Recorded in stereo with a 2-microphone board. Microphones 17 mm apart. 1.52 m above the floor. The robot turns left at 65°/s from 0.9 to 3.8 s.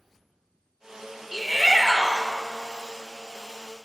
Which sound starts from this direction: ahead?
A shout, at 1.3 s.